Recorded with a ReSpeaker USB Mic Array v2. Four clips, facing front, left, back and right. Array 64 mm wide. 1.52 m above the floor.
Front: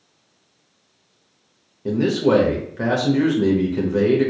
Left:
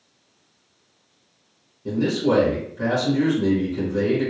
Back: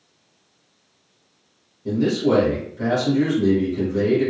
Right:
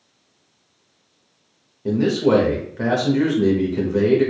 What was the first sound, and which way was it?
A man speaking, 40° right.